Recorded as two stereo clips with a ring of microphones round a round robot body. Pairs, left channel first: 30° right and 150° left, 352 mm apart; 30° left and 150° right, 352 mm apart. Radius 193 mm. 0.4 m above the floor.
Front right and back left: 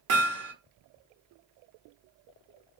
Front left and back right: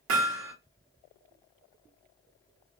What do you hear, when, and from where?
0.1 s hammering: 175° left, 1.0 m